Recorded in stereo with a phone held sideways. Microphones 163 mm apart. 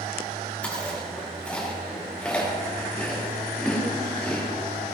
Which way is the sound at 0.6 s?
10° left (ahead or behind).